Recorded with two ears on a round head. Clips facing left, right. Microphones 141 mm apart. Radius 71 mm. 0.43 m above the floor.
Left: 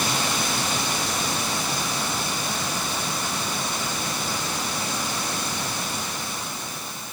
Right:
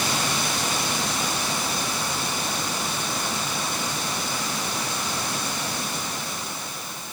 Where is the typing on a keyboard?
No typing on a keyboard in this recording.